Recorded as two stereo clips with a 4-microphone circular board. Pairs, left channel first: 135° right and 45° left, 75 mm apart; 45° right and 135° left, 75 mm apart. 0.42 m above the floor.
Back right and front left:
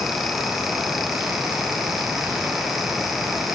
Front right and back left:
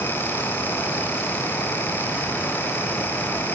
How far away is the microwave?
I don't hear a microwave.